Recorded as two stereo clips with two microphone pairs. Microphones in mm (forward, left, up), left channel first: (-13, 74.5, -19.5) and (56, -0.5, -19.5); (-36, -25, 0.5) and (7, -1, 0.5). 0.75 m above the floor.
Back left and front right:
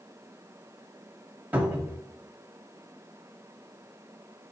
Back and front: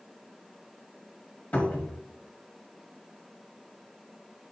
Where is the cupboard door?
110° right, 1.2 m.